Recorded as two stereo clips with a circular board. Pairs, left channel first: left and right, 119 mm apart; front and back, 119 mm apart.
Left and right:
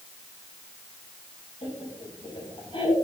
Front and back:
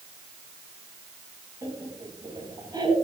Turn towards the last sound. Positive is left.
turn(degrees=130)